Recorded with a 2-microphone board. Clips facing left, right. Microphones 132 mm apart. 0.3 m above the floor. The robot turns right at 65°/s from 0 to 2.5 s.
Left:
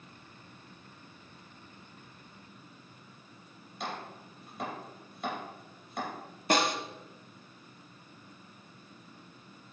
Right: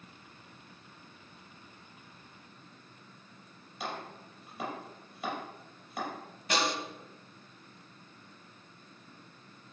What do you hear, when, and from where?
3.8 s chopping: centre (ahead or behind), 5 m
6.5 s a snare drum: 50° left (ahead or behind), 1.2 m